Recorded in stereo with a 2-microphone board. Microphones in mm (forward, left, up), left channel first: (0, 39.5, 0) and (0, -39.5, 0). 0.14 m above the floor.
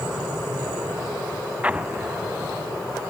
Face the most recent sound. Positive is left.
turn(degrees=-20)  # may be behind; listen again after turning